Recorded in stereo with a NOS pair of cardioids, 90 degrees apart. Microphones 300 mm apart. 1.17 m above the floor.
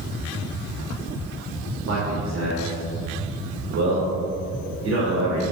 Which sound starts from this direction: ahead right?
A man speaking, at 1.9 s.